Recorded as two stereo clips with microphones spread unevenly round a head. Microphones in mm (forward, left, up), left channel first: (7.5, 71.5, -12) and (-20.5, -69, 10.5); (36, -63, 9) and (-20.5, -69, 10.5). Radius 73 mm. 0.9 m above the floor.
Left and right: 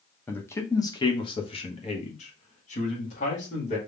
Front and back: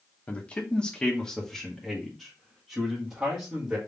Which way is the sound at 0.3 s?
30° left.